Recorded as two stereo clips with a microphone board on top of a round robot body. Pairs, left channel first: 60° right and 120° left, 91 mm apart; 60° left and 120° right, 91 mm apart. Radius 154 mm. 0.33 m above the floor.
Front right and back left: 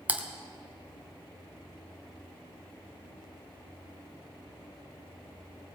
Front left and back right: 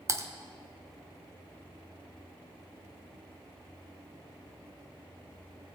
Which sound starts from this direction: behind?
Typing on a keyboard, at 0.1 s.